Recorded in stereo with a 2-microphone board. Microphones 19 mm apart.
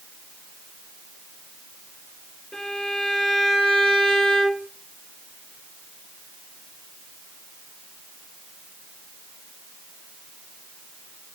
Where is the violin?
45° left (ahead or behind), 2.5 m.